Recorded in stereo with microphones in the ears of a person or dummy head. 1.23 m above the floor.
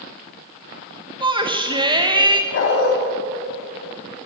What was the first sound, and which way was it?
A shout, 25° right (ahead or behind).